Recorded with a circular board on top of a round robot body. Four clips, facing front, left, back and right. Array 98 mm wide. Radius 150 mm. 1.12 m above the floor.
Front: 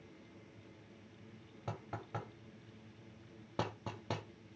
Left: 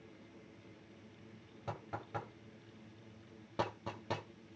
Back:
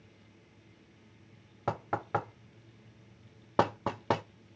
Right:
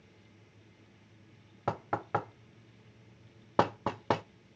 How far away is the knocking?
About 0.7 m.